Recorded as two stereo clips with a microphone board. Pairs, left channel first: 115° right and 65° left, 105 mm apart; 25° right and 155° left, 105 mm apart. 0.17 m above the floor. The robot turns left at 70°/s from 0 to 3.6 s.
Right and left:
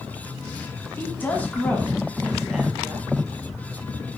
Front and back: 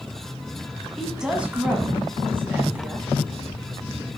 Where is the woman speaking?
115° right, 1.1 m; by 3.1 s 95° left, 1.1 m.